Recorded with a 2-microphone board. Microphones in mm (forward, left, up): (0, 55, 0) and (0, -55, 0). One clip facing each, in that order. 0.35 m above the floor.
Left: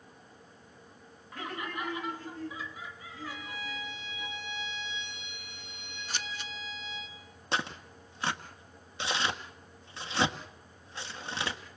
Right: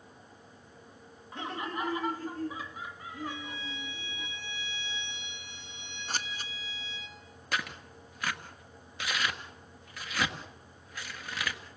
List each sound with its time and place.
1.3 s laughter: 20° right (ahead or behind), 2 m; by 4.3 s 55° right (ahead or behind), 6 m
3.3 s a violin: 20° right (ahead or behind), 4.5 m
6.1 s scissors: 40° right (ahead or behind), 0.9 m
7.5 s tearing paper: 30° left (ahead or behind), 1.5 m